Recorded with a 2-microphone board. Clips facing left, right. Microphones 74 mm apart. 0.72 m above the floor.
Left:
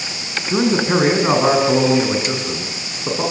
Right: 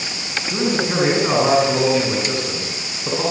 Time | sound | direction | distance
0.5 | a man speaking | 30° left (ahead or behind) | 6.5 m